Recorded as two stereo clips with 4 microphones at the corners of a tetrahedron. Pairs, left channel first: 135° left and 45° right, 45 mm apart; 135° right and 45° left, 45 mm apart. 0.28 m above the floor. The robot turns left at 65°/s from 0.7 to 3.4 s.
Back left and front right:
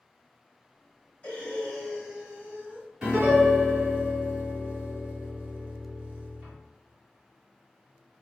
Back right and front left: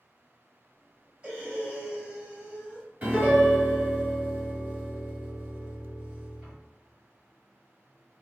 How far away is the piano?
About 1.6 m.